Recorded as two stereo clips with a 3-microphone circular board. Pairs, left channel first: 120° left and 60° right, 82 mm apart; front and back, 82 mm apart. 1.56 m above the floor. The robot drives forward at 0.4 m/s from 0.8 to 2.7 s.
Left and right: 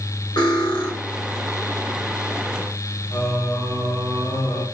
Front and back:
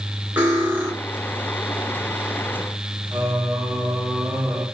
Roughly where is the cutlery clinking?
Behind left.